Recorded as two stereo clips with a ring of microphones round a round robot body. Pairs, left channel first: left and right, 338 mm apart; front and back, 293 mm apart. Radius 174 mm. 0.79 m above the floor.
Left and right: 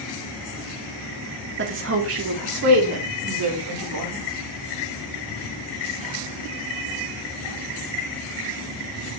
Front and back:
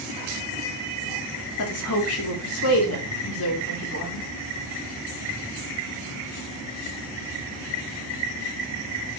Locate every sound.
1.6 s a woman speaking: 35° right, 1.4 m; by 4.2 s 50° right, 3 m